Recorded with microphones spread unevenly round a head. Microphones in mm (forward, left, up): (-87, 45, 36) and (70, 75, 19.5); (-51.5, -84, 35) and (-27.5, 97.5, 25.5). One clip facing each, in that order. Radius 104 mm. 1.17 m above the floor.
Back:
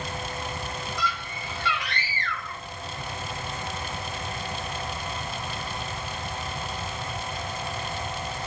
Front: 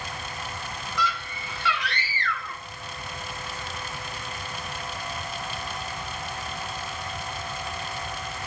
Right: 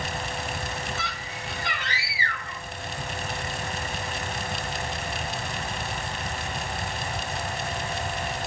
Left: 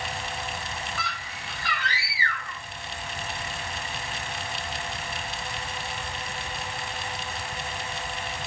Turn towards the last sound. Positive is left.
turn(degrees=-30)